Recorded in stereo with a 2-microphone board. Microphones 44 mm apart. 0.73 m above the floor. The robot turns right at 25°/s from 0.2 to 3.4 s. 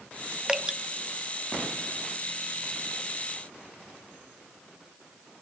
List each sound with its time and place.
0.5 s dripping: 20° right (ahead or behind), 0.6 m